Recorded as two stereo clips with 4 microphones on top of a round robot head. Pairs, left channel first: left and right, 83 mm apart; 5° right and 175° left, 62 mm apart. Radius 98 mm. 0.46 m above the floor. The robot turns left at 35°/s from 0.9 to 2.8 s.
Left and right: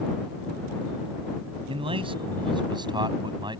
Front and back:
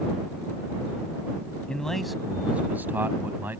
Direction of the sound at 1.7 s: 80° right.